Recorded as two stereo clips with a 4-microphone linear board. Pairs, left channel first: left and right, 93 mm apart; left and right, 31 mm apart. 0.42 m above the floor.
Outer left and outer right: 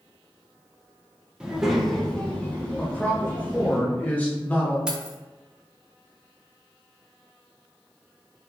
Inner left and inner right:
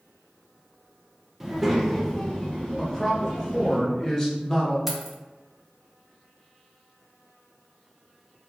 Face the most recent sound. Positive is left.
turn(degrees=-10)  # may be behind; listen again after turning